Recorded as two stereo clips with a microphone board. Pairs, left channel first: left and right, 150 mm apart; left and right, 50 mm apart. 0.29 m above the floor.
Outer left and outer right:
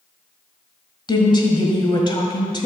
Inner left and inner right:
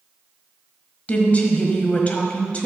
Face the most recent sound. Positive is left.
turn(degrees=30)  # may be behind; listen again after turning